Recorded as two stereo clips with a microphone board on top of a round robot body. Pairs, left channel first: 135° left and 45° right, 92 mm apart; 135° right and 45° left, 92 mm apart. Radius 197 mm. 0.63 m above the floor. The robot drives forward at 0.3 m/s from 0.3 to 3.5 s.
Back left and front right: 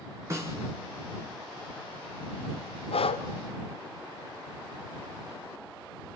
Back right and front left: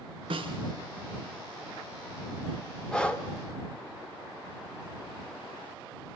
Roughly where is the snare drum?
Ahead.